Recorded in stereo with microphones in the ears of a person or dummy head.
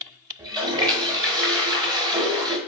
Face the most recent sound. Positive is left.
turn(degrees=-20)  # may be behind; listen again after turning